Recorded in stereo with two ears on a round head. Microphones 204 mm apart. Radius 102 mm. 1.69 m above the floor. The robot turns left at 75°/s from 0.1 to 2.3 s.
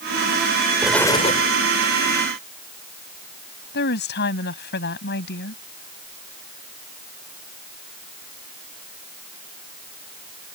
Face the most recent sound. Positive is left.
turn(degrees=50)  # may be behind; listen again after turning